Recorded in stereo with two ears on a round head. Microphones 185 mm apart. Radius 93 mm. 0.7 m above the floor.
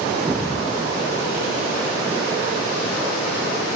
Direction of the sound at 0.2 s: 15° right (ahead or behind).